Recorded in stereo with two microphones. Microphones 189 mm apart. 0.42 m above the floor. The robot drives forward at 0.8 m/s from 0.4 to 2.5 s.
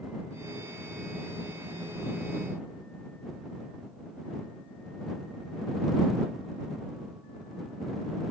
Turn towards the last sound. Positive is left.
No sound to turn to.